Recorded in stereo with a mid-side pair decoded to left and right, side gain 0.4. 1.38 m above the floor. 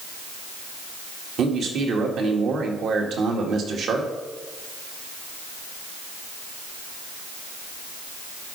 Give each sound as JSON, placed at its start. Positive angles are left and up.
{"t": 1.4, "sound": "a man speaking", "azimuth_deg": -70, "distance_m": 2.0}